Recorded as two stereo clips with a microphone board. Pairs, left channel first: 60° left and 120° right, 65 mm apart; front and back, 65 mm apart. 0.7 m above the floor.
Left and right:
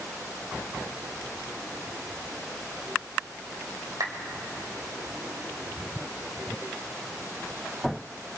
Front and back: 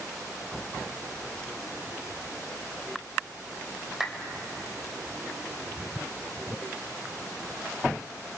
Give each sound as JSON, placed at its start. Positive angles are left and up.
{"t": 4.0, "sound": "a clap", "azimuth_deg": -100, "distance_m": 2.5}